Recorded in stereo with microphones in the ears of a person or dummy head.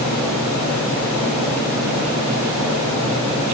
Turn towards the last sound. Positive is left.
No sound to turn to.